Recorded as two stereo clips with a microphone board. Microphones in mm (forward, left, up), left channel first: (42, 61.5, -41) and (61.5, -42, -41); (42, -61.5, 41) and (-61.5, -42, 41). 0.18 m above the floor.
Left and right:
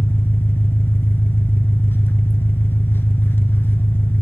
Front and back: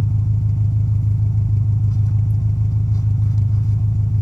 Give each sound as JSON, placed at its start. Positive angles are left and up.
{"t": 0.0, "sound": "an engine running", "azimuth_deg": 35, "distance_m": 1.0}